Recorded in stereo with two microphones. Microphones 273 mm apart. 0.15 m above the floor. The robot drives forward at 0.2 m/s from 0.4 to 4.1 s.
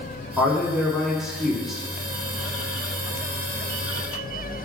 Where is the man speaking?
Centre (ahead or behind), 1.2 m.